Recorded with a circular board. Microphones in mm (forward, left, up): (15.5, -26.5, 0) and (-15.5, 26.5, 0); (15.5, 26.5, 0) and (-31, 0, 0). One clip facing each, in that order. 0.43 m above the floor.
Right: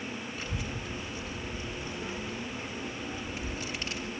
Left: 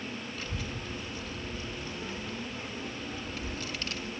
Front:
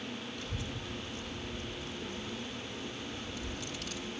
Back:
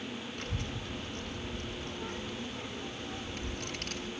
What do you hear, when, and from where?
0.4 s a child speaking: 130° right, 1.8 m